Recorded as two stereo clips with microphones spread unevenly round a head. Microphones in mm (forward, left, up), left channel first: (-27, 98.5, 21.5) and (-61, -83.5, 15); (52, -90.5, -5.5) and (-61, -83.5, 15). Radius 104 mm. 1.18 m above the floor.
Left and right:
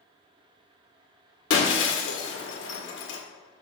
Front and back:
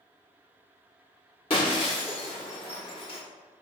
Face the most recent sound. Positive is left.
turn(degrees=60)